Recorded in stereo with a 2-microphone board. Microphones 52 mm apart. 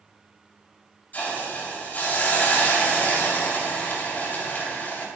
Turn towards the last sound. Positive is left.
turn(degrees=35)  # may be behind; listen again after turning